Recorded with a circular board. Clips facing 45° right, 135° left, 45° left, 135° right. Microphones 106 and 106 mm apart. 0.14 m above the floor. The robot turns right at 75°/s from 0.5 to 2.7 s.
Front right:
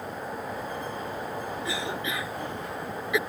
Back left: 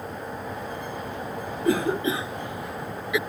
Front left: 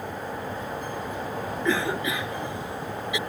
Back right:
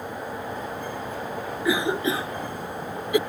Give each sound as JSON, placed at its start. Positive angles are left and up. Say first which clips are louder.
{"t": 1.6, "sound": "a cough", "louder": "back left 14 dB, back right 3 dB", "azimuth_deg": 145}